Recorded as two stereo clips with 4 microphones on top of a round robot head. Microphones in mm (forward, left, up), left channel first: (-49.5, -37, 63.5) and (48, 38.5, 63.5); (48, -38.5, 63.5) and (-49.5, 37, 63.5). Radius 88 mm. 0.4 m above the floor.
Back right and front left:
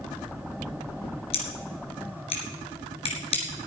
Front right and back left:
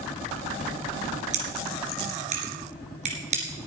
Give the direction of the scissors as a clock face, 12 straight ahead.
6 o'clock.